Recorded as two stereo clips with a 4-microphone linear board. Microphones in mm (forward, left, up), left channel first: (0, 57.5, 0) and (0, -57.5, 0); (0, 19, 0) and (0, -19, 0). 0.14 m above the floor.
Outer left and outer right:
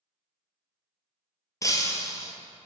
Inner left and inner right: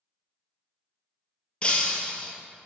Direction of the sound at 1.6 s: 30° left (ahead or behind).